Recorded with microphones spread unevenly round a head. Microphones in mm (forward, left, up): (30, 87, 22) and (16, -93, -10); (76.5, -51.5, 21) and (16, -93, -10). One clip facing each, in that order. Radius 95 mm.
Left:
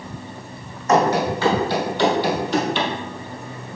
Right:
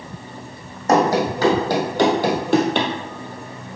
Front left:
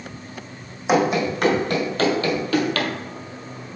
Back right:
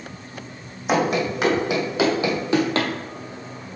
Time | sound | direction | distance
0.9 | running footsteps | 40° right | 2.5 m